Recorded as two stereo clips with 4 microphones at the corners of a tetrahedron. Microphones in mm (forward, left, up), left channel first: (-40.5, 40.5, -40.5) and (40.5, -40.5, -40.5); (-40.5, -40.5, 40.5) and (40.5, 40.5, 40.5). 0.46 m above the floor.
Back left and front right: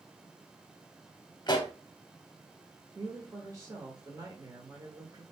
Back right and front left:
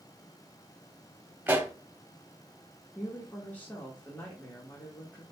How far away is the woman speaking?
About 1.4 m.